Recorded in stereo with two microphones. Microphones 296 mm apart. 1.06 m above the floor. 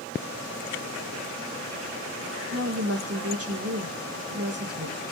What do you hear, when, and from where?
2.5 s a woman speaking: 55° right (ahead or behind), 1.7 m